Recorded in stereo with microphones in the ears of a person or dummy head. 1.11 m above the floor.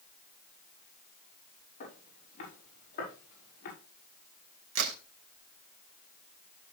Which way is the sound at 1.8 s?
40° left (ahead or behind).